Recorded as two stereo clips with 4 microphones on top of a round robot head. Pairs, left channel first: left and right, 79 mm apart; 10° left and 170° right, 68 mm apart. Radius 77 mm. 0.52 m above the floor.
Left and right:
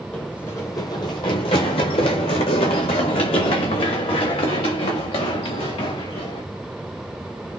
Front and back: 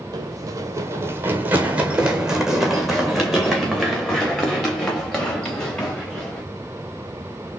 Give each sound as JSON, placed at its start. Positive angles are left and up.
{"t": 0.1, "sound": "running footsteps", "azimuth_deg": 170, "distance_m": 0.9}